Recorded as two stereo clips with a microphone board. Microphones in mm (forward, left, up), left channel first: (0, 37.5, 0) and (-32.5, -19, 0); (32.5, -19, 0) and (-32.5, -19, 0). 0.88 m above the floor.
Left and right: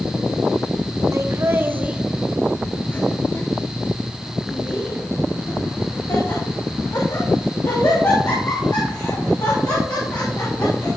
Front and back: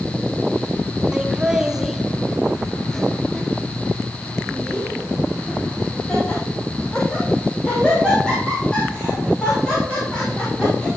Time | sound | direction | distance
1.1 | laughter | 105° right | 1.0 m